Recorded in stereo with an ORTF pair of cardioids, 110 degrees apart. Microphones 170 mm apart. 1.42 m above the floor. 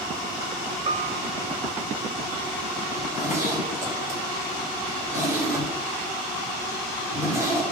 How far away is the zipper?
About 5 m.